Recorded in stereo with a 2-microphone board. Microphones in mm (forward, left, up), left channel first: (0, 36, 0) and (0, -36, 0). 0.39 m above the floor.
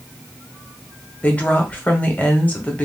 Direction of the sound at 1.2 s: 20° left (ahead or behind).